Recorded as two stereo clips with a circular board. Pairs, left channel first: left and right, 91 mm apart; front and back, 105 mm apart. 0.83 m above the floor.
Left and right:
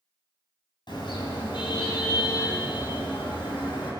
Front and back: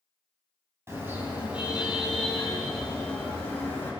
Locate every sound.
0.9 s a car horn: 115° left, 3.5 m; by 3.9 s 70° left, 5.5 m